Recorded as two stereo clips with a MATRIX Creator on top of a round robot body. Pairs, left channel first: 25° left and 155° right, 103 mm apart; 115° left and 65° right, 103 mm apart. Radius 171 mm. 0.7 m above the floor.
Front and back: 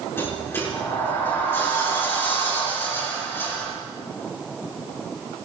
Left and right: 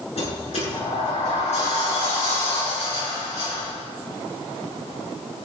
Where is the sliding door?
90° left, 6.5 m.